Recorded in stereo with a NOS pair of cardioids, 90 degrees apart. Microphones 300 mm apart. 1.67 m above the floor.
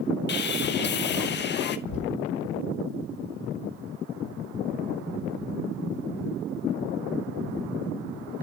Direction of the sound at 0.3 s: 35° left.